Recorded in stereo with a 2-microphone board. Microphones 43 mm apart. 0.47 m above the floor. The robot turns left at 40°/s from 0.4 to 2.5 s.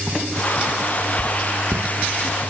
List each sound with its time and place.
1.2 s writing: 80° right, 1.6 m; by 1.8 s 60° right (ahead or behind), 1.6 m